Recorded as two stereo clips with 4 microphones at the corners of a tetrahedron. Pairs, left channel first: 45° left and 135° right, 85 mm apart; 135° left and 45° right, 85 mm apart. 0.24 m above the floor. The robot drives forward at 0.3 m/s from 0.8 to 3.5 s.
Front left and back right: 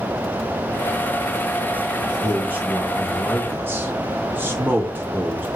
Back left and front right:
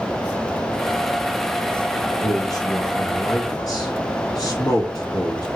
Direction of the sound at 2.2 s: 160° left.